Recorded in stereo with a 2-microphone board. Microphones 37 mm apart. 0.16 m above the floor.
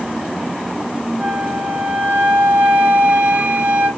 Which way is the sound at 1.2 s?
45° right (ahead or behind).